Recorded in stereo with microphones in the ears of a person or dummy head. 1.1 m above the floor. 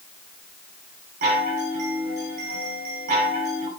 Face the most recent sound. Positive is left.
turn(degrees=-50)  # may be behind; listen again after turning